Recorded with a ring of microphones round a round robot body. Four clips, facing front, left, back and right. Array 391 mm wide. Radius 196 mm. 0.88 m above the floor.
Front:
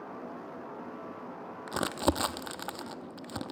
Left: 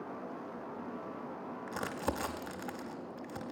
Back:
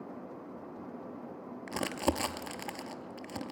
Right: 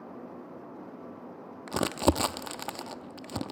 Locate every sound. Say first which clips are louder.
1.7 s crumpling: right 11 dB, front 3 dB; 80° right, 0.6 m